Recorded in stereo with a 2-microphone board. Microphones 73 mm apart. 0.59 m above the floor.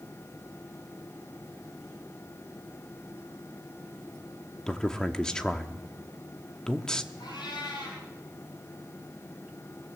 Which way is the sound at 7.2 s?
90° left.